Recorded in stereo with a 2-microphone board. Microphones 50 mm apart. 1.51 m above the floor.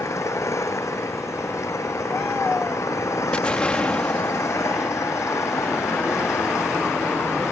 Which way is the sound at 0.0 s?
85° left.